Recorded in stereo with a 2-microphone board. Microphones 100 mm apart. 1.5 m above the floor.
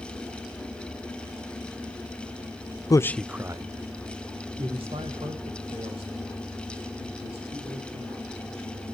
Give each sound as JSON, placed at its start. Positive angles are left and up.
{"t": 2.9, "sound": "a man speaking", "side_deg": 40, "distance_m": 0.6}